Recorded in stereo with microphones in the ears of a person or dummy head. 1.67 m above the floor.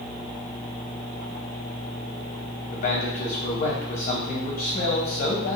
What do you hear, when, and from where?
2.7 s a man speaking: 45° left (ahead or behind), 0.6 m